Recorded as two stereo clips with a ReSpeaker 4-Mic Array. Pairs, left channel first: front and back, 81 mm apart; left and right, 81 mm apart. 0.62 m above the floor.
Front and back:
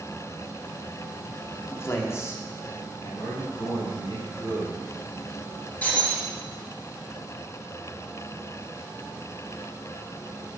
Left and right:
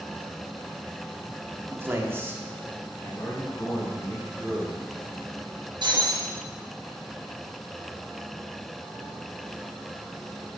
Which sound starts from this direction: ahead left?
A man speaking, at 3.0 s.